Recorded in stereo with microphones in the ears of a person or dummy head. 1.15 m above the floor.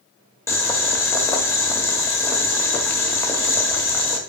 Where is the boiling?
20° left (ahead or behind), 1.0 m.